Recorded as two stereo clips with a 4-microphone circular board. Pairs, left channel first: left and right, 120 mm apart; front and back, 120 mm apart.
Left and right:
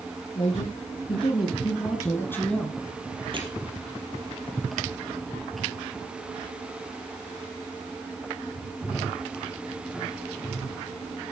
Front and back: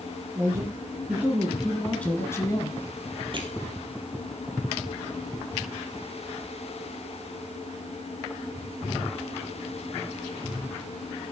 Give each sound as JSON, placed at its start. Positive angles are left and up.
{"t": 0.3, "sound": "a man speaking", "azimuth_deg": 120, "distance_m": 3.0}
{"t": 3.3, "sound": "crushing", "azimuth_deg": -135, "distance_m": 2.5}